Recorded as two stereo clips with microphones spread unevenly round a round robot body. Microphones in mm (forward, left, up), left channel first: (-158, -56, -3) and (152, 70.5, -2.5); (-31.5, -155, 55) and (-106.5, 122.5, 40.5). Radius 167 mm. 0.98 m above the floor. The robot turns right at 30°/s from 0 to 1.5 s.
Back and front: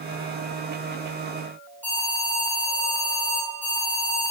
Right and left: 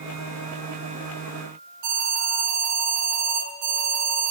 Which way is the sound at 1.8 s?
115° left.